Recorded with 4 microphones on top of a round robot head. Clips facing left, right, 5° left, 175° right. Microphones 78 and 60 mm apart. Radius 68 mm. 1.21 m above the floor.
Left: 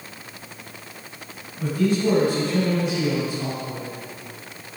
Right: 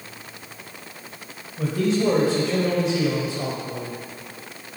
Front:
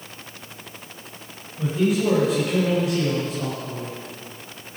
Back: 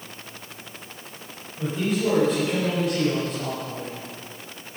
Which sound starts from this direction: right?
A man speaking, at 1.6 s.